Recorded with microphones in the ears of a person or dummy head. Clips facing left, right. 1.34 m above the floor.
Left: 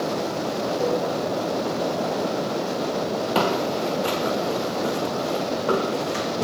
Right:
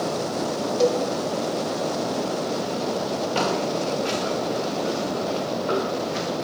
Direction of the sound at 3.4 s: 65° left (ahead or behind).